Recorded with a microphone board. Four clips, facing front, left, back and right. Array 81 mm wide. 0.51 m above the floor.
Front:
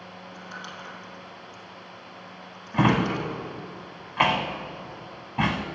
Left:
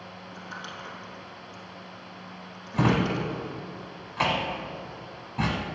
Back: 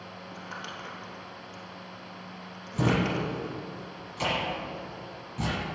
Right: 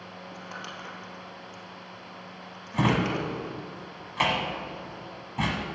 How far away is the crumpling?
About 2.5 m.